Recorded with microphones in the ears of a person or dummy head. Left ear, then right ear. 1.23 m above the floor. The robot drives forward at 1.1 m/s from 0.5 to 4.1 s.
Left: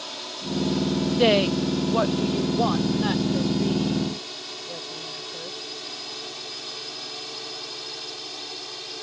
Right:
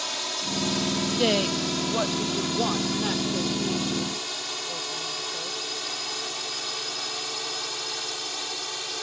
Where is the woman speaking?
20° left (ahead or behind); by 5.6 s 5° left (ahead or behind).